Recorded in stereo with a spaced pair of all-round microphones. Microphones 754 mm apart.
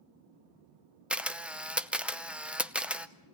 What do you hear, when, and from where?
1.1 s a camera shutter: centre (ahead or behind), 0.6 m